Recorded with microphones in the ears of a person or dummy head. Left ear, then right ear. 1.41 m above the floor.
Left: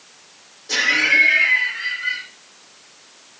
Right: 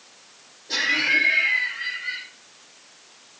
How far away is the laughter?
About 3 m.